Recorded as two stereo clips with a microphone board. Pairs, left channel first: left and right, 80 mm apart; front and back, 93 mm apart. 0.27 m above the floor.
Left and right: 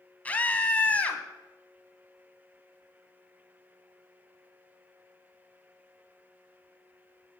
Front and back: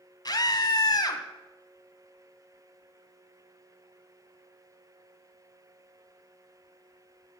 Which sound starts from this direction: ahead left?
A scream, at 0.2 s.